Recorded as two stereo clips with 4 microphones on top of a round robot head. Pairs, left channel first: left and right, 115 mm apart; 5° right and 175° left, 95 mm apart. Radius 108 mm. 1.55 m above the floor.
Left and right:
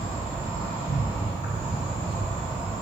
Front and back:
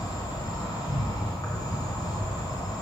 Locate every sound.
0.0 s an insect: 45° left, 1.8 m